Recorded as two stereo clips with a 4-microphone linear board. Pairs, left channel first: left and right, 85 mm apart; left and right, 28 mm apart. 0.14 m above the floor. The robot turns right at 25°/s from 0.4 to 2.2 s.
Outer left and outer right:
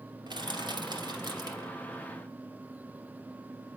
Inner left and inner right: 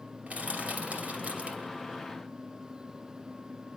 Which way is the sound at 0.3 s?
60° right (ahead or behind).